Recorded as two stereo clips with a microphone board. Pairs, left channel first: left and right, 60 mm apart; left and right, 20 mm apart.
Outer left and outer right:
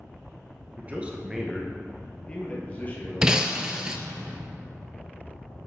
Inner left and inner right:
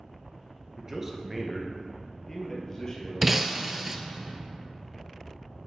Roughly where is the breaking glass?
Centre.